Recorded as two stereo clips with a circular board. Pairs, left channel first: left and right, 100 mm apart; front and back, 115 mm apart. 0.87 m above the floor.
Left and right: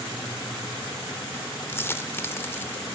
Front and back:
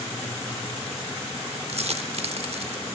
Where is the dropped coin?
155° left, 1.0 m.